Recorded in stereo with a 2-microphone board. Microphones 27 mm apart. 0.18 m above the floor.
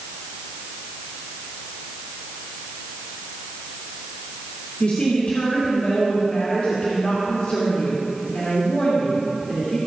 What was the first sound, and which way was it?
A woman speaking, 50° left (ahead or behind).